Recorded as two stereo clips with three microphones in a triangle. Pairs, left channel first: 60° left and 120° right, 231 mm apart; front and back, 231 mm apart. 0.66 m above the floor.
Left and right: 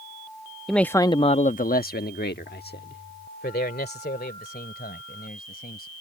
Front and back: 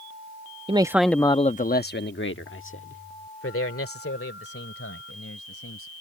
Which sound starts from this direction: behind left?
A man speaking, at 0.7 s.